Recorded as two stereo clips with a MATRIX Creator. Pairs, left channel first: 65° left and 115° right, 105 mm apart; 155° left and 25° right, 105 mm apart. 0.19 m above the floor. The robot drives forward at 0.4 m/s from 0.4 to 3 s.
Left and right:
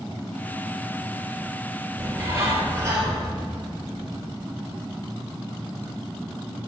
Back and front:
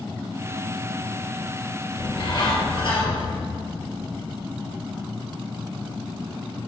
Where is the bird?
170° right, 1.3 m.